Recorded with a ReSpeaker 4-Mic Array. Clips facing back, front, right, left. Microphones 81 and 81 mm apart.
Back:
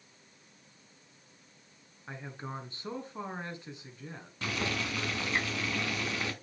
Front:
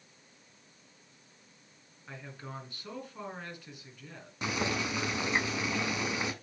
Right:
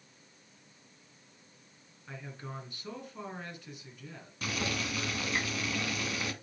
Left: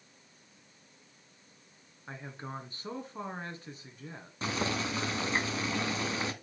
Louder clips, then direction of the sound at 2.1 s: Back 3 dB, left 2 dB; 130° left.